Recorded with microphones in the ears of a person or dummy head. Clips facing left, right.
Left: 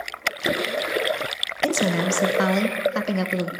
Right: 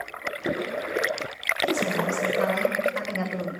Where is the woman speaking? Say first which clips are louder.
Left 3 dB; 70° left (ahead or behind), 1.0 m; by 3.5 s 30° left (ahead or behind), 0.8 m.